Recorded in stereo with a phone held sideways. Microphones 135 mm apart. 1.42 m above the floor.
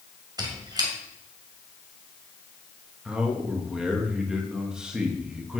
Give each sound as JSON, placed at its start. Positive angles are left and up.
{"t": 0.4, "sound": "a squeak", "side_deg": -30, "distance_m": 2.5}
{"t": 3.0, "sound": "a man speaking", "side_deg": -5, "distance_m": 2.0}